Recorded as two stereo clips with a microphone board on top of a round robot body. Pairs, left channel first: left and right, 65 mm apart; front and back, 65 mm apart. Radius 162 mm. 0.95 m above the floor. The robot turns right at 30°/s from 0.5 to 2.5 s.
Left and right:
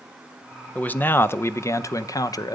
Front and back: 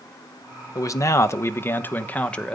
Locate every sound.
0.8 s a man speaking: 20° left, 1.0 m; by 2.6 s 75° left, 1.0 m